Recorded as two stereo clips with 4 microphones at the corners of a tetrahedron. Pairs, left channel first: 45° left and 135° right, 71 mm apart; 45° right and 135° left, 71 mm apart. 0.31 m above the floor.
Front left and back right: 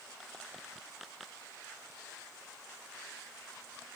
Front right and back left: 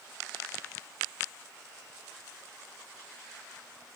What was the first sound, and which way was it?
Only background noise.